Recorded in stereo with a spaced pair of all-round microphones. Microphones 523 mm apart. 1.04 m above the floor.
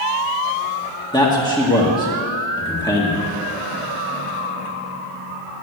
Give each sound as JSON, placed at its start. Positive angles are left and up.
{"t": 1.1, "sound": "a man speaking", "side_deg": 10, "distance_m": 1.9}